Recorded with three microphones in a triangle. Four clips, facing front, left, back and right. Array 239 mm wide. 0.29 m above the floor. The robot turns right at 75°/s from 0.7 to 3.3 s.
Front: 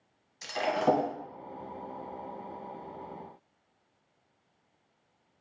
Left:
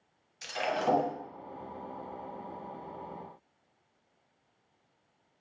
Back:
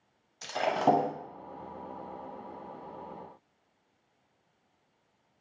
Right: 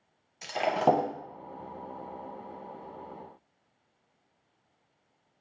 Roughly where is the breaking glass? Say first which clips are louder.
Right 5 dB, back 1 dB; behind right.